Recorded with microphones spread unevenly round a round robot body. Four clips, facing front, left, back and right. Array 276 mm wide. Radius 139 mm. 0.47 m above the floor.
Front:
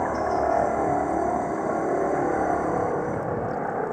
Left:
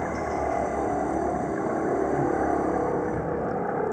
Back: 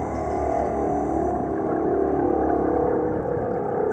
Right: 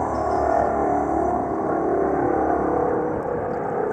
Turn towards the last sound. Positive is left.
turn(degrees=-165)